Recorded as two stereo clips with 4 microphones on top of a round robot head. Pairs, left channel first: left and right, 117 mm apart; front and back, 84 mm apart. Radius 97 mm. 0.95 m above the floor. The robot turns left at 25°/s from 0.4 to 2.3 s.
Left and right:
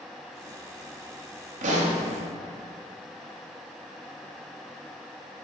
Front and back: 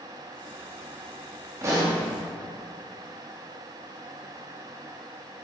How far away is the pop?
About 1.1 m.